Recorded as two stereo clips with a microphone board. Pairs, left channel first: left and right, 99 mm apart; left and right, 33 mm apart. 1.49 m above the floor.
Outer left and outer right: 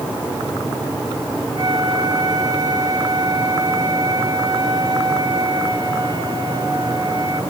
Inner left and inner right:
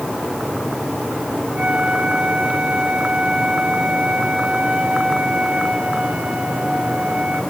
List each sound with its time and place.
1.5 s a flute: 45° right (ahead or behind), 6 m